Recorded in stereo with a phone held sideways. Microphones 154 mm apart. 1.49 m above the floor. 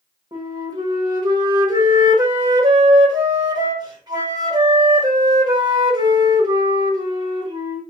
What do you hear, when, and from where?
0.3 s a flute: 30° right (ahead or behind), 1.0 m